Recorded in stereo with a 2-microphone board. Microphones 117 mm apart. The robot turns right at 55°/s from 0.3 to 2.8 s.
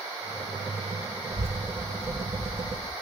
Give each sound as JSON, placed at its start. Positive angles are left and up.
{"t": 1.3, "sound": "a child speaking", "azimuth_deg": -65, "distance_m": 2.0}